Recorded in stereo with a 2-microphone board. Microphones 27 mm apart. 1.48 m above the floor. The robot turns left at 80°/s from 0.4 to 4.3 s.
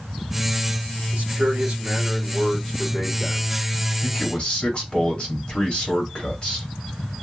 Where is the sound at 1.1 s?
55° right, 2.5 m; by 3.5 s 115° left, 2.5 m.